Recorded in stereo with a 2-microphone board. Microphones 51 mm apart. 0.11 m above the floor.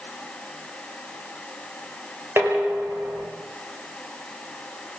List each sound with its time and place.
2.4 s dishes clattering: 50° right (ahead or behind), 7 m